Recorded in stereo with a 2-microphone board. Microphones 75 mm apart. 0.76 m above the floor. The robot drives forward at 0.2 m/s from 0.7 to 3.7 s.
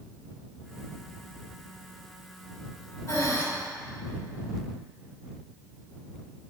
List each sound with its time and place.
3.1 s breathing: 45° left (ahead or behind), 1.3 m; by 3.4 s 40° left (ahead or behind), 1.4 m